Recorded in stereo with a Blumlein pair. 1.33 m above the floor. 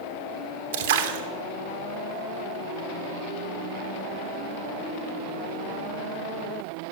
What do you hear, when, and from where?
0.7 s a splash: 55° right, 0.7 m